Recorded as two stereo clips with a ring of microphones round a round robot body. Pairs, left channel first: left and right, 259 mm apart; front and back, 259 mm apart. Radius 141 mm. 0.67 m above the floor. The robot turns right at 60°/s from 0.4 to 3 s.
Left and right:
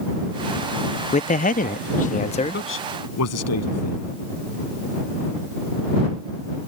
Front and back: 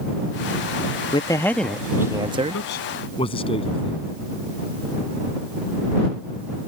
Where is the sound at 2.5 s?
45° left; by 4.1 s 70° left.